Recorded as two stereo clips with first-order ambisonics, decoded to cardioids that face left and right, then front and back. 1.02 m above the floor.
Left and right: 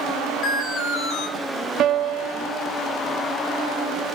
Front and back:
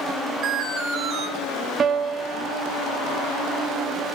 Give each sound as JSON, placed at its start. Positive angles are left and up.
{"t": 0.4, "sound": "an alarm", "azimuth_deg": 125, "distance_m": 8.5}
{"t": 1.8, "sound": "a piano", "azimuth_deg": -120, "distance_m": 1.1}